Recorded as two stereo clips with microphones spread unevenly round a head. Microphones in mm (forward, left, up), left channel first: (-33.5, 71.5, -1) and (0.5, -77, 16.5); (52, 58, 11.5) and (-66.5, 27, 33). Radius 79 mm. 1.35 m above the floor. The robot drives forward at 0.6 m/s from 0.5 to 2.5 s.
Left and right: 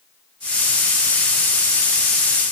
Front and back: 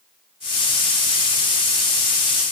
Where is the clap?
I don't hear a clap.